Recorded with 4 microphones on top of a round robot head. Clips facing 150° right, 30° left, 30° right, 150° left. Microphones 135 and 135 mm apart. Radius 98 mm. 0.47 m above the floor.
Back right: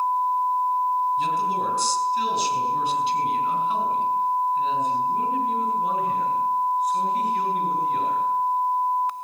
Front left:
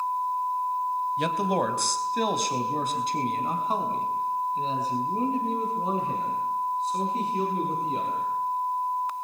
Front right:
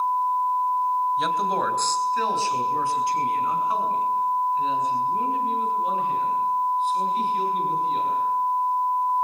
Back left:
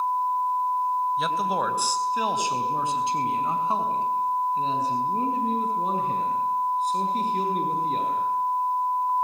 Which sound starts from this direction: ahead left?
A man speaking, at 1.2 s.